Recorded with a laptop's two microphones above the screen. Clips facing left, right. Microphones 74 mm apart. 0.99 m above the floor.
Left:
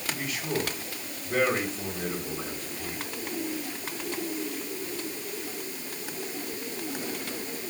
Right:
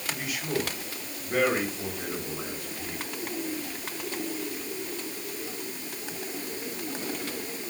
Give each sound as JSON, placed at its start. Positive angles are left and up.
{"t": 0.1, "sound": "a man speaking", "side_deg": -10, "distance_m": 6.0}